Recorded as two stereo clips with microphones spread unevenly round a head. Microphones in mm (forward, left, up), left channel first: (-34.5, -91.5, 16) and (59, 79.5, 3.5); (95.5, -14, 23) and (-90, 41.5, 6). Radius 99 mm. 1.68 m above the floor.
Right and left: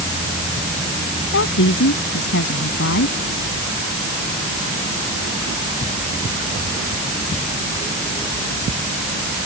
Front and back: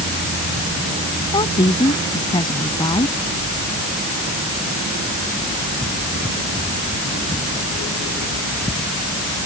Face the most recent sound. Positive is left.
turn(degrees=-85)